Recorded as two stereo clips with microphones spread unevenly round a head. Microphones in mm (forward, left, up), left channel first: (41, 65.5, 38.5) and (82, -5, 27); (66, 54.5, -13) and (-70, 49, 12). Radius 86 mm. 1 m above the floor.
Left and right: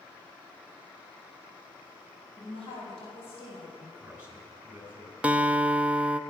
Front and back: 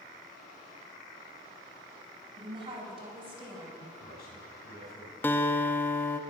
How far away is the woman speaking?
About 6.5 m.